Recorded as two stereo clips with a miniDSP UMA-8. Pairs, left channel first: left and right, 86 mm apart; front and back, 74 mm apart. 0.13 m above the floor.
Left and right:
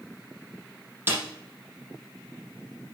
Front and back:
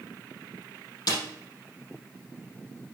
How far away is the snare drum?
About 4.5 m.